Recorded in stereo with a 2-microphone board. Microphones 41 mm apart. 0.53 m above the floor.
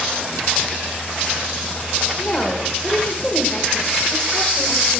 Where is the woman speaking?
20° left (ahead or behind), 1.5 m.